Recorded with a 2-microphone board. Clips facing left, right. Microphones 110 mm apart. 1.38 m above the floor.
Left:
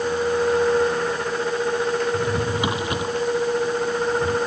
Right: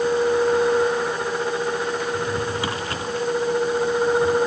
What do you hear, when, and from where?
2.1 s a drawer: 20° left (ahead or behind)